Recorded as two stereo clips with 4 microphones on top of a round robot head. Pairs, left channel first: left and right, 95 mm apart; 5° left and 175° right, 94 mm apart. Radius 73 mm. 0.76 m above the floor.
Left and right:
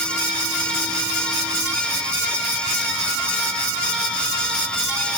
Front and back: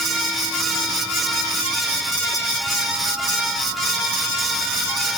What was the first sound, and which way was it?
Only background noise.